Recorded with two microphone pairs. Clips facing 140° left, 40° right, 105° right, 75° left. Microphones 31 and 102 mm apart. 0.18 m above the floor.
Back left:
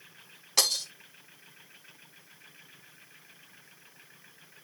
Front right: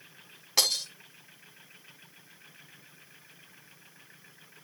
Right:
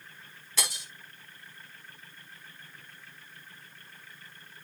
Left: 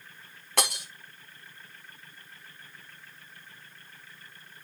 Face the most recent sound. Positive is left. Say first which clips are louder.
# even, left 7 dB
turn(degrees=45)